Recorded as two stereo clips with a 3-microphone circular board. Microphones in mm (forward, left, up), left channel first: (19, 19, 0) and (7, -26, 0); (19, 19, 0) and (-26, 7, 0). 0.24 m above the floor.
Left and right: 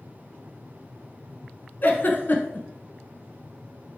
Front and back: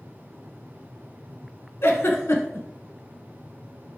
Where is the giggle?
30° left, 0.5 m.